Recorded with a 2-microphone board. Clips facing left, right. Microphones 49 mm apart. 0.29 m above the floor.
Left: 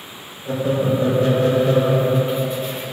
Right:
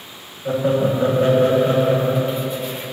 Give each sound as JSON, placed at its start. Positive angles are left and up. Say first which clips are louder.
{"t": 0.5, "sound": "laughter", "louder": "right 2 dB", "side_deg": -35, "distance_m": 1.4}